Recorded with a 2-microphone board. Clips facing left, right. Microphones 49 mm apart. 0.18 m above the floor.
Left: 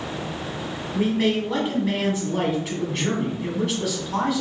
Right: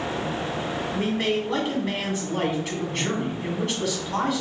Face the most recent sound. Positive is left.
turn(degrees=5)  # may be behind; listen again after turning